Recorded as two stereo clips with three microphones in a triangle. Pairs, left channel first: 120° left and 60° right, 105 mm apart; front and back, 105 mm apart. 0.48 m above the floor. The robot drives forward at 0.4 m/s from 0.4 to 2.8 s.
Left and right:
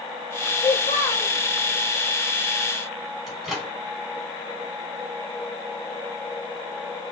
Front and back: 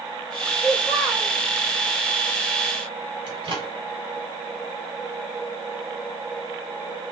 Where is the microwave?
145° right, 2.5 m.